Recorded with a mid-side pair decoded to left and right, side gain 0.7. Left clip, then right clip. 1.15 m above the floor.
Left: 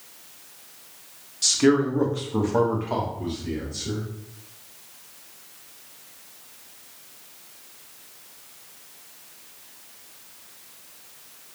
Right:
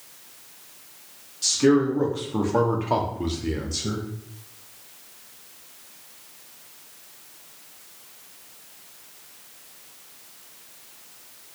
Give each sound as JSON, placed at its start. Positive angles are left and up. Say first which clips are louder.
{"t": 1.4, "sound": "a man speaking", "louder": "even", "azimuth_deg": 25, "distance_m": 1.3}